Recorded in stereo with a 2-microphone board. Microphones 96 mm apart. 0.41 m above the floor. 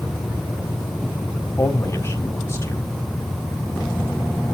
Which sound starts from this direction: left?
A man speaking, at 1.6 s.